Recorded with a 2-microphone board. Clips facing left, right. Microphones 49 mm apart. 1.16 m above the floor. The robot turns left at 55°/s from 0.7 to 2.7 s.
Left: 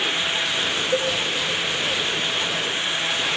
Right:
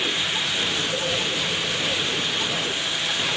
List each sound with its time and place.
0.9 s a cowbell: 75° left (ahead or behind), 2.5 m; by 1.1 s 85° left, 2.5 m